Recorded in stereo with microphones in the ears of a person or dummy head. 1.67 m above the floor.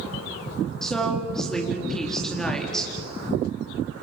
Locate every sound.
0.8 s a woman speaking: 5° left (ahead or behind), 4 m